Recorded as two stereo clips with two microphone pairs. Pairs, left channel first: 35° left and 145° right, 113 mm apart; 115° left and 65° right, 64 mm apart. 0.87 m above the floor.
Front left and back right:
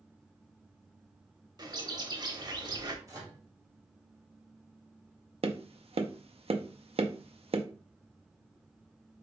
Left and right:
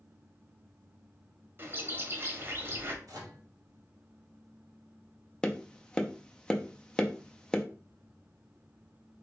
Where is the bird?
105° right, 0.8 m.